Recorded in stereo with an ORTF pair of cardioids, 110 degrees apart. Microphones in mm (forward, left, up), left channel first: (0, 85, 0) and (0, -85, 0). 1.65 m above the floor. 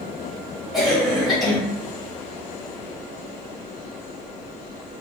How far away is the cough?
About 1.5 m.